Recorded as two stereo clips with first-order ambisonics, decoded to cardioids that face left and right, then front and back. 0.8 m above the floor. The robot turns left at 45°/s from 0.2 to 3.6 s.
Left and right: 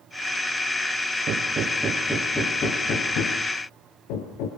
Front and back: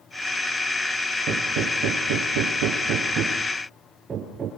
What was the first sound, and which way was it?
Hammering, 145° right.